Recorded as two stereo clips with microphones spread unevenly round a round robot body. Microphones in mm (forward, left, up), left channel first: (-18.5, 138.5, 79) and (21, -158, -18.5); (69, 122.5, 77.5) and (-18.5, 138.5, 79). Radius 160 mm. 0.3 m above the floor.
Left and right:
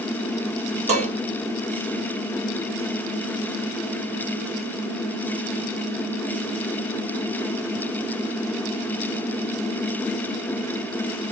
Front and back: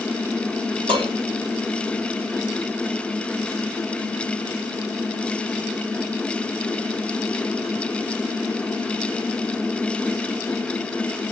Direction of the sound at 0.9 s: 150° right.